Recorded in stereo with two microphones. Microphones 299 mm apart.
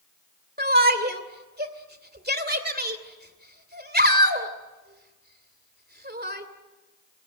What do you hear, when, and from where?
0.6 s a shout: 30° right (ahead or behind), 2.5 m